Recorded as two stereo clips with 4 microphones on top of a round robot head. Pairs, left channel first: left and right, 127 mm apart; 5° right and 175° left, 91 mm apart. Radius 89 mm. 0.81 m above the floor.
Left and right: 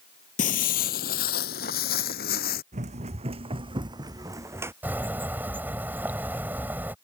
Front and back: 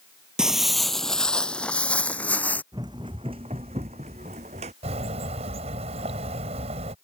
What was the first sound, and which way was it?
Footsteps, 95° left.